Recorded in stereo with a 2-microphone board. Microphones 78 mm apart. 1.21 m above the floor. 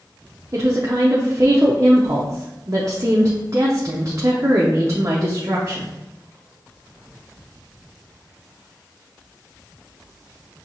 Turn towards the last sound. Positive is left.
turn(degrees=-40)  # may be behind; listen again after turning